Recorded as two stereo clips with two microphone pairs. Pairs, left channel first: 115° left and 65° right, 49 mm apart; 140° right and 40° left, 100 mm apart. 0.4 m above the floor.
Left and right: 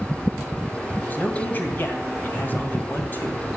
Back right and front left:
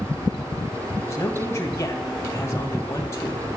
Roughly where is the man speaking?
Behind.